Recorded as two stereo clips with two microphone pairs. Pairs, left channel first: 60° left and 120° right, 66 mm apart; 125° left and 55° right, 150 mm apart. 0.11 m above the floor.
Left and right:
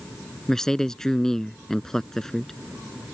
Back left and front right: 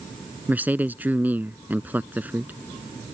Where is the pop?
No pop in this recording.